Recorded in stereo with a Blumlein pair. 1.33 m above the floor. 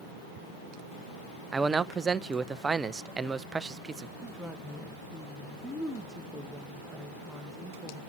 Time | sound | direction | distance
1.5 | a man speaking | 15° right | 0.6 m
4.2 | a woman speaking | straight ahead | 1.0 m